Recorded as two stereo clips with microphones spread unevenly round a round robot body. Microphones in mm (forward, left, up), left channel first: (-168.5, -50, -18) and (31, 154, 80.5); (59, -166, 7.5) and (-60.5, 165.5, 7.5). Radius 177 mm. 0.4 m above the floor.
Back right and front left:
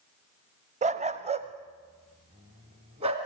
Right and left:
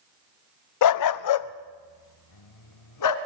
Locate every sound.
0.8 s a dog barking: 30° right, 0.5 m